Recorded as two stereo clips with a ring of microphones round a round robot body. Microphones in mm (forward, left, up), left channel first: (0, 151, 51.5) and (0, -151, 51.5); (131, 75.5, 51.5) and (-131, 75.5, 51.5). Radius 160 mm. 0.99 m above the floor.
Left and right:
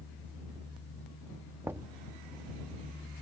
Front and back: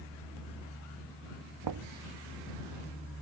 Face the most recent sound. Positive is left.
turn(degrees=-175)